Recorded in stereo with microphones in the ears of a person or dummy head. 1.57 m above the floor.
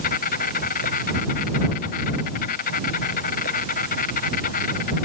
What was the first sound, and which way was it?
An insect, 50° left (ahead or behind).